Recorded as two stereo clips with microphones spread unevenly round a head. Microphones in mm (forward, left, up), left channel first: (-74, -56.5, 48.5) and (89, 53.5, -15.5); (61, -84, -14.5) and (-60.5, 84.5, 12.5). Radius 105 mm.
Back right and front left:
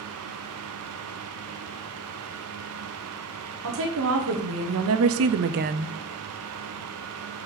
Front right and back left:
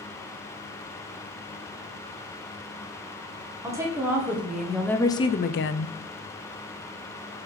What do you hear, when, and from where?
3.6 s a woman speaking: 50° left, 1.7 m; by 6.0 s 40° right, 0.6 m